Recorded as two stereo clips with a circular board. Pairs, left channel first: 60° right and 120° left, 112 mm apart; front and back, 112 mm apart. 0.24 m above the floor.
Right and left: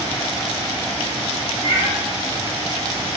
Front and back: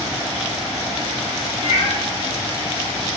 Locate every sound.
1.6 s a cat meowing: 35° right, 1.4 m